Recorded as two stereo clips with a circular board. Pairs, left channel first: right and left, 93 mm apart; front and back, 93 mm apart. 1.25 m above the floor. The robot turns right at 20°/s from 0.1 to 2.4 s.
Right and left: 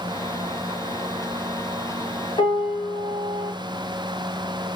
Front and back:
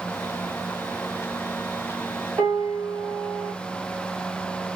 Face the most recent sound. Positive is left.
turn(degrees=-125)